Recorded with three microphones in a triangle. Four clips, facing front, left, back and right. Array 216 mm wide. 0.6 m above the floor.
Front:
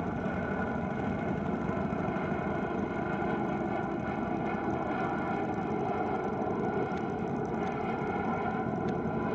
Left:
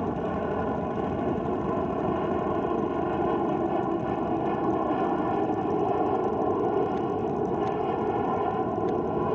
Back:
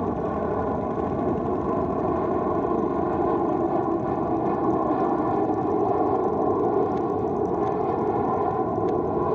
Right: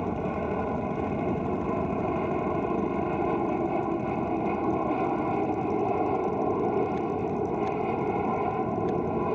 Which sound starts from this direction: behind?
An aircraft, at 0.0 s.